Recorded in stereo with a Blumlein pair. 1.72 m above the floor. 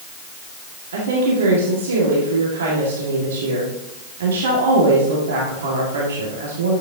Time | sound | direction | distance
0.9 | a woman speaking | 65° right | 2.0 m